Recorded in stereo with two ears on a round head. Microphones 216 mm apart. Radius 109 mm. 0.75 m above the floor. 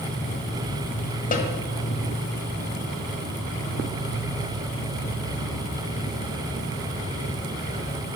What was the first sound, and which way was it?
An insect, 30° left (ahead or behind).